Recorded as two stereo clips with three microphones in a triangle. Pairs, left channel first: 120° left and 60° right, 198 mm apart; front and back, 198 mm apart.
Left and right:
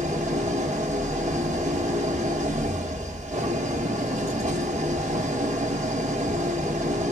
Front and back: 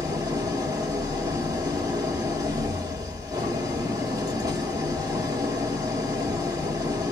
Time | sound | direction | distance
0.0 | an engine running | 110° right | 1.3 m